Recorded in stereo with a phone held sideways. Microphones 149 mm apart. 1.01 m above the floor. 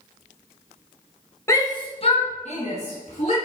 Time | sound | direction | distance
1.5 | a shout | 20° left (ahead or behind) | 1.0 m